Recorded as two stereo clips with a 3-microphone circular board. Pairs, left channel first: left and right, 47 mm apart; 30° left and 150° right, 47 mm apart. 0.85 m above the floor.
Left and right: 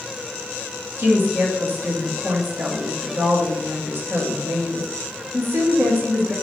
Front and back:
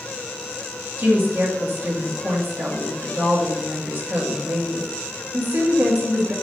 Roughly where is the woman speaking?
Behind right.